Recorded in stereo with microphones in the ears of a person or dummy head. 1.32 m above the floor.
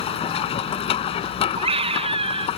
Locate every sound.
0.0 s a machine running: 30° left (ahead or behind)
1.6 s a scream: 25° right (ahead or behind)